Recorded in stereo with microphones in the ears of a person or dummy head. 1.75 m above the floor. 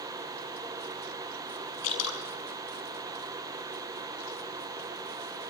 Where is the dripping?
75° left (ahead or behind), 6.5 m.